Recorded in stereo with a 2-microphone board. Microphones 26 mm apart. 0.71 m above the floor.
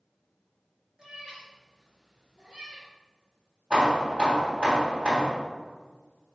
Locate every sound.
1.0 s a cat meowing: 25° right (ahead or behind), 2.5 m; by 2.9 s 30° right (ahead or behind), 3.5 m
3.7 s hammering: 40° right (ahead or behind), 3 m